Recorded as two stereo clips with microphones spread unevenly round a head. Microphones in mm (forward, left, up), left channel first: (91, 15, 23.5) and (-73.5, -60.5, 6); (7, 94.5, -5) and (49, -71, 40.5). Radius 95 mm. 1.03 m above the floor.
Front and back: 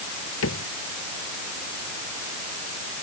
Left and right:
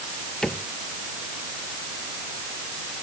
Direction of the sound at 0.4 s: 15° left.